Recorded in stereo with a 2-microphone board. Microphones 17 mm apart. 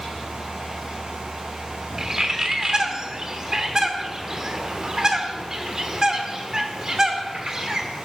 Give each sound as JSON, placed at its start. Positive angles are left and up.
{"t": 2.0, "sound": "a bird", "side_deg": -35, "distance_m": 1.0}